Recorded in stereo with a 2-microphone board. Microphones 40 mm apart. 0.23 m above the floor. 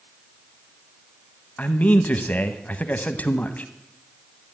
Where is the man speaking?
40° left (ahead or behind), 1.2 m.